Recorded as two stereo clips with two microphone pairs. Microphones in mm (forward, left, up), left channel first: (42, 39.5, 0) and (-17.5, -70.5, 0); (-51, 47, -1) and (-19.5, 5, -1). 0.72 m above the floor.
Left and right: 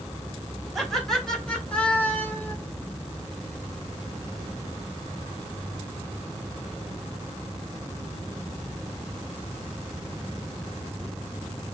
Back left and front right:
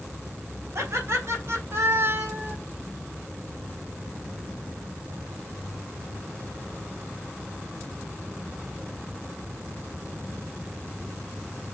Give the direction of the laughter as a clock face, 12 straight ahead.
1 o'clock.